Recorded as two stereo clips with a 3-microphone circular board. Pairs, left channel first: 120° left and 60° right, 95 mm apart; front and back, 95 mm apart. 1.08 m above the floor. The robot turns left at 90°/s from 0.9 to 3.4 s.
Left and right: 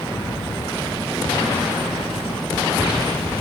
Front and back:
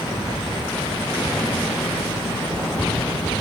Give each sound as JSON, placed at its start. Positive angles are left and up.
{"t": 0.1, "sound": "an explosion", "azimuth_deg": 130}